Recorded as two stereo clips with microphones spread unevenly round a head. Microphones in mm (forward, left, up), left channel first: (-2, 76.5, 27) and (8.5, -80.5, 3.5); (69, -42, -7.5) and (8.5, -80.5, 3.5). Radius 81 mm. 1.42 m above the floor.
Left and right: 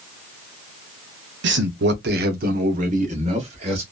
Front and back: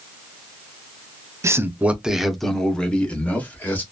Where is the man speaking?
95° right, 0.6 m; by 3.8 s 35° right, 1.6 m.